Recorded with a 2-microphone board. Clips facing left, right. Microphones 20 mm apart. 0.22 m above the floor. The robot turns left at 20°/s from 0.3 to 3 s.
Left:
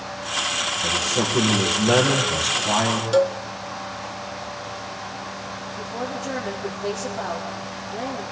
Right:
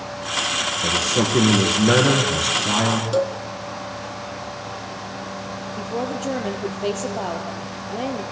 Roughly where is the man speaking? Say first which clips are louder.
Right 3 dB; behind right.